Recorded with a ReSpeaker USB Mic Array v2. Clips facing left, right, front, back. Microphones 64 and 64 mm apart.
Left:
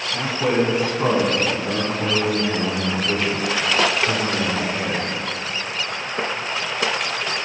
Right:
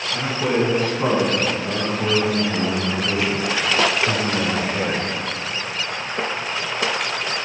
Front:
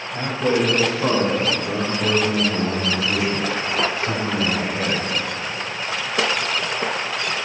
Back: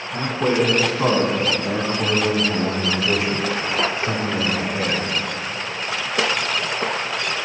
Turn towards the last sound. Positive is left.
turn(degrees=-100)